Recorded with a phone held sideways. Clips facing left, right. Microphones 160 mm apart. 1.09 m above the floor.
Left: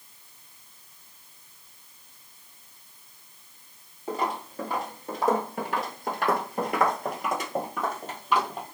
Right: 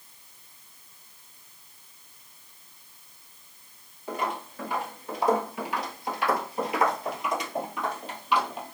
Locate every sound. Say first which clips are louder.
4.1 s footsteps: left 2 dB; 30° left (ahead or behind), 1.8 m; by 8.8 s 40° left (ahead or behind), 2.5 m